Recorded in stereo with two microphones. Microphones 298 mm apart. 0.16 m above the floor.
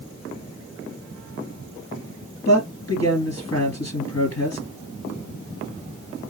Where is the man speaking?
50° left (ahead or behind), 2 m.